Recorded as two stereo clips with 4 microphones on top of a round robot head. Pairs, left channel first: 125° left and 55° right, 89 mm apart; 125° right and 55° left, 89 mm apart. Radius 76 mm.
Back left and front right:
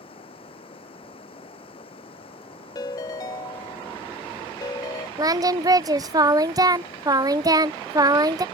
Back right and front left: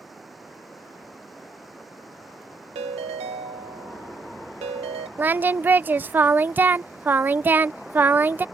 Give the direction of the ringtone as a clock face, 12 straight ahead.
10 o'clock.